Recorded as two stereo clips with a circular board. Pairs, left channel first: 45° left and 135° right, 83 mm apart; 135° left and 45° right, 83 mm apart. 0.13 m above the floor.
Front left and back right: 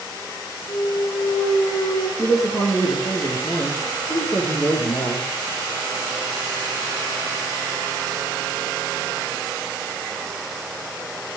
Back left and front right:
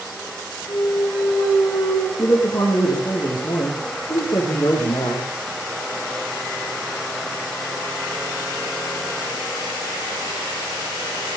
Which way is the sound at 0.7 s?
80° left.